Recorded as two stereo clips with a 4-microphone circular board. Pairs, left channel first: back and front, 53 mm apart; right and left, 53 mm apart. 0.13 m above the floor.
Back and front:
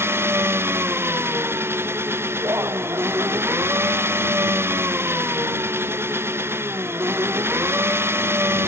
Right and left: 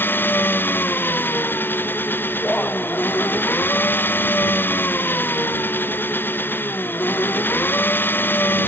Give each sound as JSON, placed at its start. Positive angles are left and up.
{"t": 0.0, "sound": "an engine running", "azimuth_deg": -40}
{"t": 2.4, "sound": "laughter", "azimuth_deg": -25}